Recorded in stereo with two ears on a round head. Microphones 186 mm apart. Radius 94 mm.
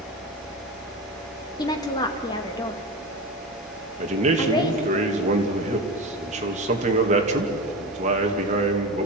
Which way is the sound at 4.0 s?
35° right (ahead or behind).